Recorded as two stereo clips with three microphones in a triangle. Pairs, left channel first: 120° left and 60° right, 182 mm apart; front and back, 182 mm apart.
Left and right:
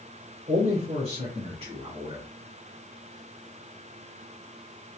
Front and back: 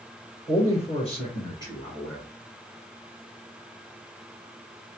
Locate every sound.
0.5 s a man speaking: 30° right, 2 m; by 2.3 s 70° right, 1.7 m